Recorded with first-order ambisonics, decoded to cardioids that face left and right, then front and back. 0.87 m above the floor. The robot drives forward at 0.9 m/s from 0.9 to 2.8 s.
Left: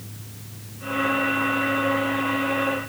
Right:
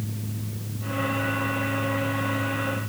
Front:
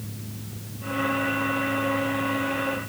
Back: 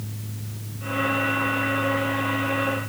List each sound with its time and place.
Only background noise.